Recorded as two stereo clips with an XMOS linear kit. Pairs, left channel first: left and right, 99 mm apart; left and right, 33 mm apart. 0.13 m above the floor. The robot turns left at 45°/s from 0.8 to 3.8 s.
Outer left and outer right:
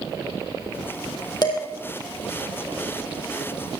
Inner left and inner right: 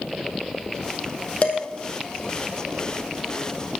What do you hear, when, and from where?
1.4 s dishes clattering: 45° left (ahead or behind), 3.5 m; by 1.6 s 55° left (ahead or behind), 3.5 m